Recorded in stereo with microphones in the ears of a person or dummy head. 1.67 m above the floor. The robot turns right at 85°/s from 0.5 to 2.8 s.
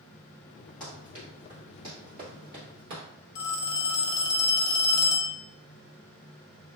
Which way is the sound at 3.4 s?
20° left (ahead or behind).